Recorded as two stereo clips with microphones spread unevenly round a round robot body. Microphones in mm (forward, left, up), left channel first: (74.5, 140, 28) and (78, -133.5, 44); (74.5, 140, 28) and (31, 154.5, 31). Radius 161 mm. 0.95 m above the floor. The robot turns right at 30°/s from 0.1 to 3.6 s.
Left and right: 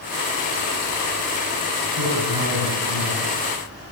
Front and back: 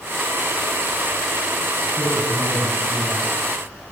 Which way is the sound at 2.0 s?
130° right.